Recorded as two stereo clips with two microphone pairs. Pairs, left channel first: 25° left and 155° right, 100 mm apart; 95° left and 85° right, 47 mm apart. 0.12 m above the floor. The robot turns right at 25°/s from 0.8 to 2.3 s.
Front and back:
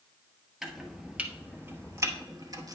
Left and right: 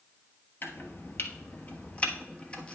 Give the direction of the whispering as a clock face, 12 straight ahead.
I don't hear whispering.